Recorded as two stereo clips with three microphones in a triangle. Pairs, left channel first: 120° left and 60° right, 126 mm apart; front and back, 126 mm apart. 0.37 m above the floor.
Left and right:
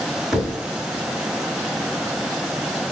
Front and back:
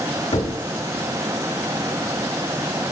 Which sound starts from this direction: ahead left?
Knocking, at 0.3 s.